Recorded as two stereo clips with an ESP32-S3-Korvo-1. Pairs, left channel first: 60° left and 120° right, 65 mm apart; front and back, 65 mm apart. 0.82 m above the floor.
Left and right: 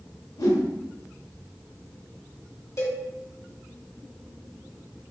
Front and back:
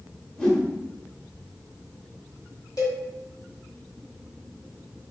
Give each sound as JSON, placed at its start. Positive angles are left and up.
{"t": 0.4, "sound": "a whoosh", "azimuth_deg": 75, "distance_m": 0.7}
{"t": 2.8, "sound": "a cowbell", "azimuth_deg": 20, "distance_m": 1.3}